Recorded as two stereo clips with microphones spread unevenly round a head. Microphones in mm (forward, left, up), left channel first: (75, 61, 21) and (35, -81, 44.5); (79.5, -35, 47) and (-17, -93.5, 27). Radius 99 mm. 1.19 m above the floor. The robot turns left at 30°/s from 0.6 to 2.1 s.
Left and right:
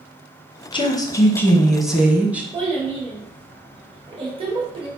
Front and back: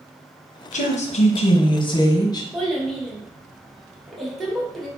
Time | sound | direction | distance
0.7 | a woman speaking | 20° left | 1.0 m
2.5 | a child speaking | 55° right | 1.5 m